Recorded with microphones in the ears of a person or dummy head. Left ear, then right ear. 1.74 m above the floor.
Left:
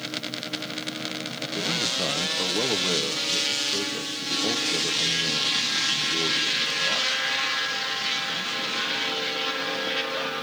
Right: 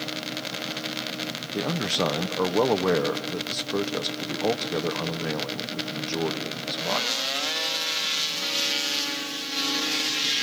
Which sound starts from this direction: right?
A man speaking, at 1.5 s.